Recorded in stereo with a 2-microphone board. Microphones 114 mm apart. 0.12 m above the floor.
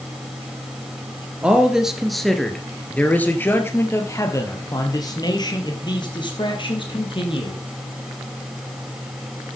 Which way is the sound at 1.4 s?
10° right (ahead or behind).